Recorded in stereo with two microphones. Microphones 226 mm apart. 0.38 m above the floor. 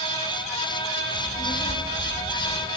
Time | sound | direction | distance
1.1 | a child speaking | 55° right (ahead or behind) | 1.8 m